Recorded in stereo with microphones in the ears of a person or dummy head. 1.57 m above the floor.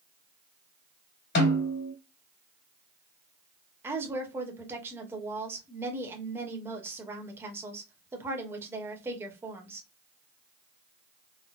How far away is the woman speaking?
About 0.9 m.